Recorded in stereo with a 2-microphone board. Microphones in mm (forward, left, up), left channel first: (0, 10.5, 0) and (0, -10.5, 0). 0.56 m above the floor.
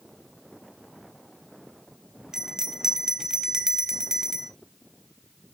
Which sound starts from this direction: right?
A bell, at 2.3 s.